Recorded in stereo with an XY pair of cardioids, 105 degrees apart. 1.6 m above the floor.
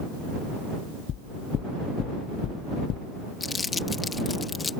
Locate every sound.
1.1 s knocking: 60° left
3.4 s crumpling: 30° left